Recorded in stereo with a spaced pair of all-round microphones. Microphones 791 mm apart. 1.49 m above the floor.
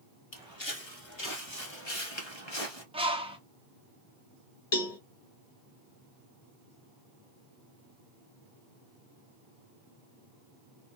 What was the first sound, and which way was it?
Footsteps, 35° left (ahead or behind).